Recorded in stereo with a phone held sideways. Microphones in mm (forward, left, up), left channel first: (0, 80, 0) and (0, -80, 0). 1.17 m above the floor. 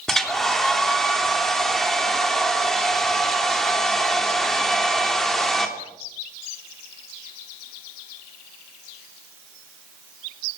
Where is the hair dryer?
Centre (ahead or behind), 3 m.